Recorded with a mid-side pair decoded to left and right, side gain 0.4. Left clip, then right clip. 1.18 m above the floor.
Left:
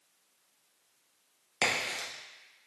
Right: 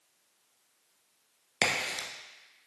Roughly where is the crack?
Ahead right.